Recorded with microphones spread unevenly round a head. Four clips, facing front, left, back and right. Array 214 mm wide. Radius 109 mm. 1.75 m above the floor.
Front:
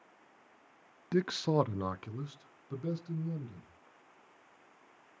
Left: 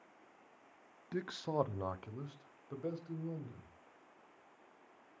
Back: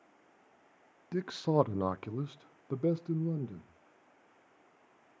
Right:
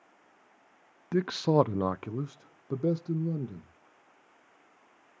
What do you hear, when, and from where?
1.1 s a man speaking: 45° right, 0.7 m; by 3.7 s 120° right, 1.9 m